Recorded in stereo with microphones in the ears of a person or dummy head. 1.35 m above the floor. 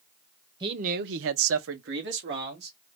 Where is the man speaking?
25° right (ahead or behind), 0.6 m; by 2.8 s 50° right (ahead or behind), 1.7 m.